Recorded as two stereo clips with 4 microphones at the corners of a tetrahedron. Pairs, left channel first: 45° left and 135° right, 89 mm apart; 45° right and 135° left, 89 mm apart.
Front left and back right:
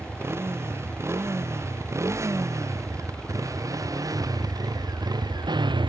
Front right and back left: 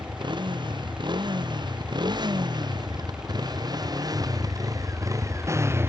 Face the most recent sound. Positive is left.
turn(degrees=-165)